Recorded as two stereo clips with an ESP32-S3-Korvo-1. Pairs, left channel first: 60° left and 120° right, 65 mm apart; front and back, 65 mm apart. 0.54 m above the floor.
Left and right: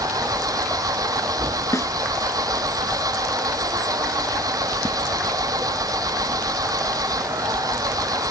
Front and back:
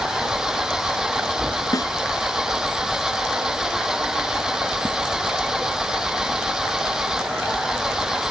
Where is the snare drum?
25° left.